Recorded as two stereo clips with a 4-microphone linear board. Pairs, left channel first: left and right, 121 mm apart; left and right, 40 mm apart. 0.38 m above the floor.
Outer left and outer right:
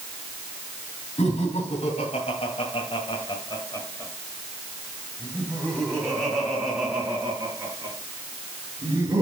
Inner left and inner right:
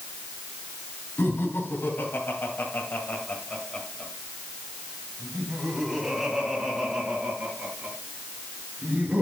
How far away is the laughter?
About 3 m.